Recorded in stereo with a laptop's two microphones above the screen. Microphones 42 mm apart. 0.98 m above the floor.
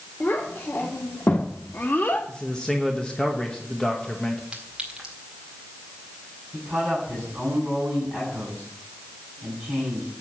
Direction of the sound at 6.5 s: 5° right (ahead or behind).